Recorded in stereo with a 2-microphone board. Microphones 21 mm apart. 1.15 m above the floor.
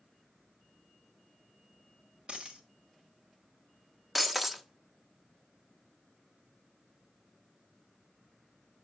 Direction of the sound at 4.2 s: 10° right (ahead or behind).